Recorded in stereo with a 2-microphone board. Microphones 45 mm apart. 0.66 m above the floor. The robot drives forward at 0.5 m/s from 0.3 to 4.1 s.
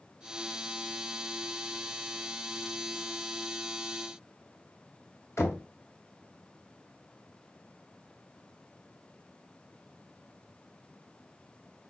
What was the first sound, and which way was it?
Knocking, 65° left (ahead or behind).